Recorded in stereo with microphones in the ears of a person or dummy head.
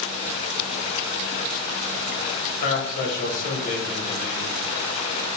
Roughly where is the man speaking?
Left.